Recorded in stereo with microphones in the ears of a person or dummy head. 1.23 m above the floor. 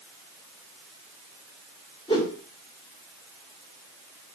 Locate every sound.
2.1 s a whoosh: 25° left (ahead or behind), 3.5 m